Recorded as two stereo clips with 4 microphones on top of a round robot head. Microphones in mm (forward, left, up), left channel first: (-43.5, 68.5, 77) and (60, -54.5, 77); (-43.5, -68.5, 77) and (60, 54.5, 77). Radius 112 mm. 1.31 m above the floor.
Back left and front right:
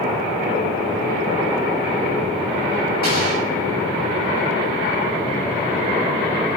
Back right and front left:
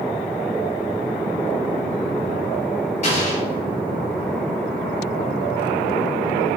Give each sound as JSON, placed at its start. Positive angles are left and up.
{"t": 3.0, "sound": "an explosion", "azimuth_deg": -85, "distance_m": 7.0}